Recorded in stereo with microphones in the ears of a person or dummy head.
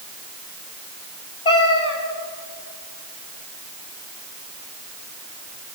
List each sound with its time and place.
1.4 s a cat meowing: 30° left (ahead or behind), 4.5 m